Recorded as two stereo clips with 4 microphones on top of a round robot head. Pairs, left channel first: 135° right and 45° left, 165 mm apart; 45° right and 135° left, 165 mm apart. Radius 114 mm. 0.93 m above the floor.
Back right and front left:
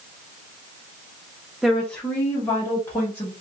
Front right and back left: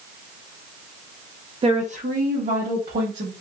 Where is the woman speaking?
135° left, 0.6 m; by 3.3 s 155° left, 1.5 m.